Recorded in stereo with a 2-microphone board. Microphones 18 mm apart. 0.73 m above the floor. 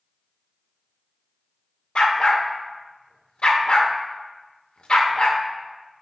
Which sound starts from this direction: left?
A dog barking, at 1.9 s.